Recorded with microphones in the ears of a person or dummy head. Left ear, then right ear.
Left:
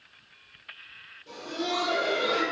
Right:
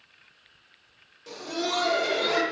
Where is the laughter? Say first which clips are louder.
Right 2 dB; 55° right (ahead or behind), 0.5 m.